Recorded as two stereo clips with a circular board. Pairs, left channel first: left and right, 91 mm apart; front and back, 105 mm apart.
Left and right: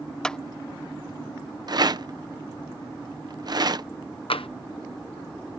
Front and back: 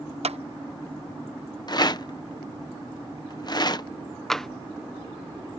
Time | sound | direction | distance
0.2 | a clap | 170° left | ?
1.7 | a rattle | 45° right | ?
4.3 | tapping | 85° left | ?